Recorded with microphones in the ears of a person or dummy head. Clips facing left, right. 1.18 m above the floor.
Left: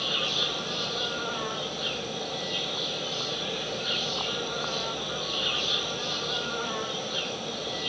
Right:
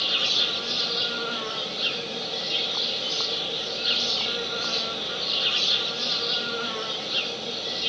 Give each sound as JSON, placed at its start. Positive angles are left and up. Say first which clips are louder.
{"t": 0.0, "sound": "an insect", "louder": "left 1 dB", "side_deg": -35, "distance_m": 3.5}